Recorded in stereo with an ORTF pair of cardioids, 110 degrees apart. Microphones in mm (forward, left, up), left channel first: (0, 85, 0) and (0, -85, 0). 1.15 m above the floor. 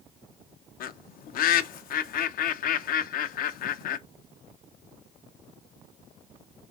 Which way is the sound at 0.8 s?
55° left.